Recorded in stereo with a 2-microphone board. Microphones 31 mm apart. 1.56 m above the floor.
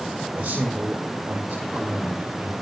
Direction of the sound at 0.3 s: 90° right.